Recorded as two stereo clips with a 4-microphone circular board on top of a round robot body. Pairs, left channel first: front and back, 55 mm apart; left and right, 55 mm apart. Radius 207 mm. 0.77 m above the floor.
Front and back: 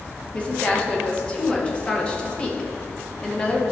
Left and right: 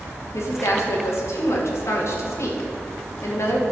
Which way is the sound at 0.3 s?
70° left.